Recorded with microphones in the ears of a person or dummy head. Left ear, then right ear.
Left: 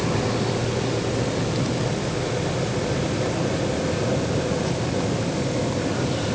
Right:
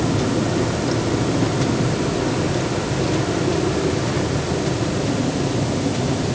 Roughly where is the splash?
I don't hear a splash.